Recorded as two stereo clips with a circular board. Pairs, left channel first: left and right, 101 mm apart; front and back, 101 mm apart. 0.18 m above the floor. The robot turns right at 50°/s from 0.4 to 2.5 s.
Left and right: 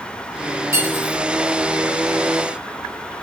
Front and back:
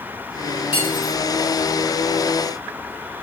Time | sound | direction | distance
0.7 | cutlery clinking | 30° right | 1.3 m